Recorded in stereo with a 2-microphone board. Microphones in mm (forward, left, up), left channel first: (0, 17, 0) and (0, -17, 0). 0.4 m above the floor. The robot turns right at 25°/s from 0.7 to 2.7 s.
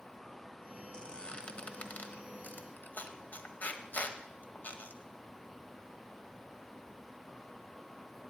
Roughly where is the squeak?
Left.